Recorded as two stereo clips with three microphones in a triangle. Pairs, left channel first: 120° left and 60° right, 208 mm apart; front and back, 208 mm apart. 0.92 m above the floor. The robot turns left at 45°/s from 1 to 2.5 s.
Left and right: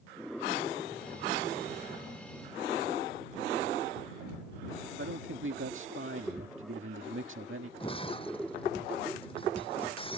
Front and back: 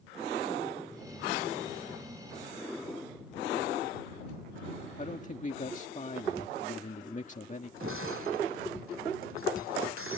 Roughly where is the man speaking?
Ahead right.